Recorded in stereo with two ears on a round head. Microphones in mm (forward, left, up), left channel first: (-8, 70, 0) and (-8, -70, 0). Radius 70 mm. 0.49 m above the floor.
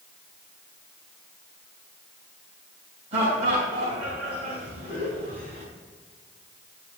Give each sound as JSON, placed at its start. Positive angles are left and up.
{"t": 3.1, "sound": "laughter", "side_deg": -40, "distance_m": 4.0}